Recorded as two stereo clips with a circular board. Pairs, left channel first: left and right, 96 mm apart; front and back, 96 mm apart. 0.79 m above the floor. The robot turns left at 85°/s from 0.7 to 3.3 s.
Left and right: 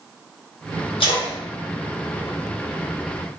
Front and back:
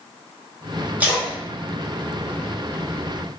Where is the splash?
110° left, 0.7 m; by 3.2 s 75° right, 0.7 m.